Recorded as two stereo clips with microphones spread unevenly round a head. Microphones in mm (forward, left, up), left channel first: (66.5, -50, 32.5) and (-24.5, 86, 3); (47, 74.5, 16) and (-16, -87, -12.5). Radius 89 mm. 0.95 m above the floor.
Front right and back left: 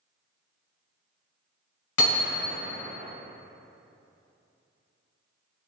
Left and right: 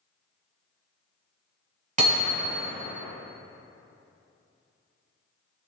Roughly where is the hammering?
Ahead right.